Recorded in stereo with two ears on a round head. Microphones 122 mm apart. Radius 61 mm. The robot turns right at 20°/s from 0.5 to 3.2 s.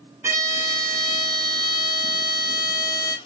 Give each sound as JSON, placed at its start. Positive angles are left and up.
{"t": 0.2, "sound": "a violin", "azimuth_deg": -140, "distance_m": 0.6}